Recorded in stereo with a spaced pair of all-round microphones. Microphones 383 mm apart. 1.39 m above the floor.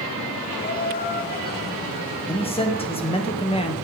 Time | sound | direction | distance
0.6 | laughter | 25° left (ahead or behind) | 2 m
2.3 | a man speaking | 15° left (ahead or behind) | 1.6 m